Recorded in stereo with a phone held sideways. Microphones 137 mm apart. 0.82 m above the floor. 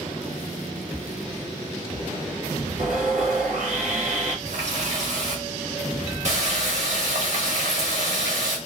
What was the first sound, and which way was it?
Sawing, 65° right (ahead or behind).